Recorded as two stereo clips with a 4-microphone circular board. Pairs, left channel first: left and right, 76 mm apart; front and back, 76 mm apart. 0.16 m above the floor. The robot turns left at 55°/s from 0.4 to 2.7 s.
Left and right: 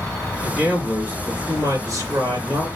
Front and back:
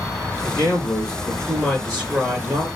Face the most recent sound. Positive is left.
turn(degrees=-140)